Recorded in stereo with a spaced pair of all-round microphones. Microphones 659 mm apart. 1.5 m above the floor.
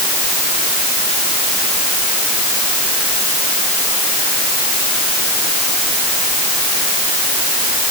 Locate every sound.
Only background noise.